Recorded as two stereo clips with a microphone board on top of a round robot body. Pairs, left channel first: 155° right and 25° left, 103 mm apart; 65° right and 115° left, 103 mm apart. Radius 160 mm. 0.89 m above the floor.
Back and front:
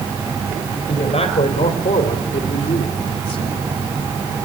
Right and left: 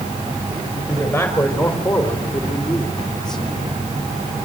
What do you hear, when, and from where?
0.9 s a man speaking: 145° right, 4 m; by 3.6 s 150° right, 3 m